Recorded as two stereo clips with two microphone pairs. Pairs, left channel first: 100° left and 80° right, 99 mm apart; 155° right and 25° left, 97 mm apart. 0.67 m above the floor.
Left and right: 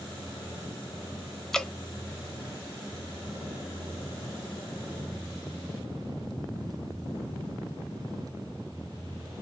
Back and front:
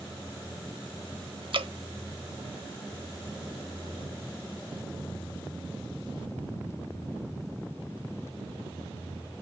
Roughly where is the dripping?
Ahead.